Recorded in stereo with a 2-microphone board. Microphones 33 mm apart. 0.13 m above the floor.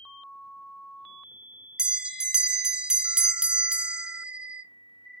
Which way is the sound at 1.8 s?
25° right (ahead or behind).